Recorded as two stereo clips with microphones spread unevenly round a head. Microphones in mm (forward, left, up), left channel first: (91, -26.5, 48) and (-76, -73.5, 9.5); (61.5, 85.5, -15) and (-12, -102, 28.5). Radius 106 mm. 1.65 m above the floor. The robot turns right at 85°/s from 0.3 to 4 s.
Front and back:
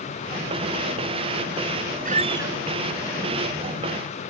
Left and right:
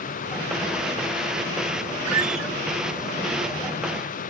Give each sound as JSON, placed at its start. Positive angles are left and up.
{"t": 2.0, "sound": "a squeak", "azimuth_deg": -125}